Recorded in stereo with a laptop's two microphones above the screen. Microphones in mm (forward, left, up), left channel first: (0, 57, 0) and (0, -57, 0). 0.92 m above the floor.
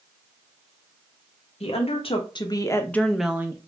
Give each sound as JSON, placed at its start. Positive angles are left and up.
{"t": 1.6, "sound": "a woman speaking", "side_deg": 60, "distance_m": 0.9}